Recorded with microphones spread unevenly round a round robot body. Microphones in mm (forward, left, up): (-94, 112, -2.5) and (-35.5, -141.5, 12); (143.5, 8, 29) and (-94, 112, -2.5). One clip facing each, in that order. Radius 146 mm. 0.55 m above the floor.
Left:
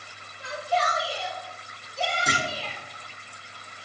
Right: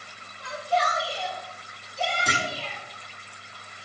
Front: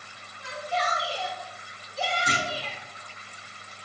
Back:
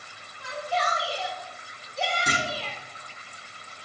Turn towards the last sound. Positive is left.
turn(degrees=-170)